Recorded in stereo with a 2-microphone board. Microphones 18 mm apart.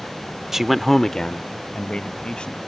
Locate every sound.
0.5 s a man speaking: 20° right (ahead or behind); by 2.6 s 70° left (ahead or behind)